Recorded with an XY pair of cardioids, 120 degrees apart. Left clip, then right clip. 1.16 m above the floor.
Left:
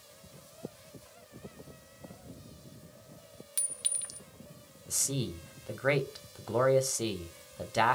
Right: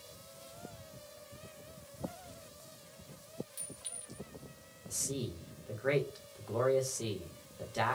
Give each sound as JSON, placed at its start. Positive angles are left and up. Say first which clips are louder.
{"t": 3.6, "sound": "a clink", "louder": "left 10 dB", "azimuth_deg": 70, "distance_m": 0.7}
{"t": 4.9, "sound": "a man speaking", "louder": "left 5 dB", "azimuth_deg": 45, "distance_m": 1.3}